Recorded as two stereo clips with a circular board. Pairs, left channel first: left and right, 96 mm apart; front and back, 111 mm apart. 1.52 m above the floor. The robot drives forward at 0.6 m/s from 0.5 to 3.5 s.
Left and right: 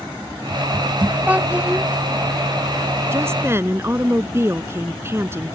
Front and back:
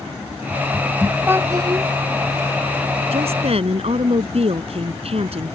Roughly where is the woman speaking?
Behind right.